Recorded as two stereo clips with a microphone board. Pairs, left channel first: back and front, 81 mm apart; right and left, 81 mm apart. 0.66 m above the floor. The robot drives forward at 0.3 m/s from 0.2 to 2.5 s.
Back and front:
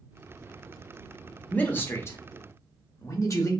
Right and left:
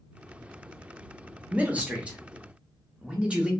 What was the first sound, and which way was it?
A man speaking, 135° left.